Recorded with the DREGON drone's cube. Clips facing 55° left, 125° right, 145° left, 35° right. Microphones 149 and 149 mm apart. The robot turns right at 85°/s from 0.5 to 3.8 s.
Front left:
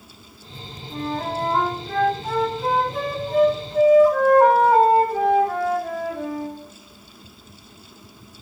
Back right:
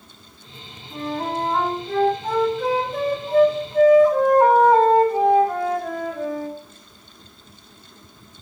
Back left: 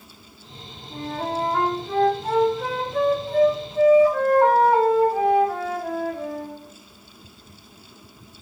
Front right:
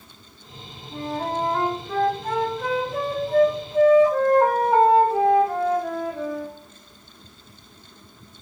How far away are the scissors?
I don't hear scissors.